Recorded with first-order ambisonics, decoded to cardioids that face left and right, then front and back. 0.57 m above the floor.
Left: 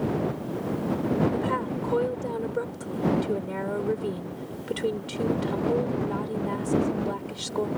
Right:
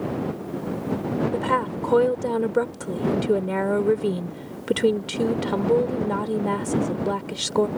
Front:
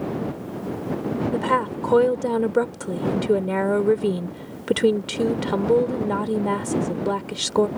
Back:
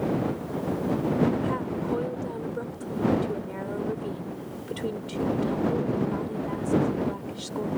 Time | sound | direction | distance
1.3 | a woman speaking | 30° right | ?